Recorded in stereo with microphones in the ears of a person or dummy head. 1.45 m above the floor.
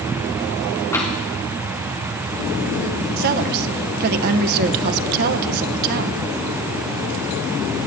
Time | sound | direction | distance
0.9 | tapping | 15° left (ahead or behind) | 2.5 m
3.2 | a woman speaking | 50° right (ahead or behind) | 0.9 m